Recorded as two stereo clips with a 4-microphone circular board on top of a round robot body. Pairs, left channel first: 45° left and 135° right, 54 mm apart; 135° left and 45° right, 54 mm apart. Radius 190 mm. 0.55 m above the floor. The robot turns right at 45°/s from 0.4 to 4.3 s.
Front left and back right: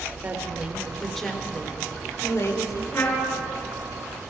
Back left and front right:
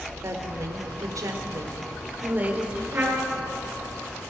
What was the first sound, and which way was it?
A woman speaking, 75° right.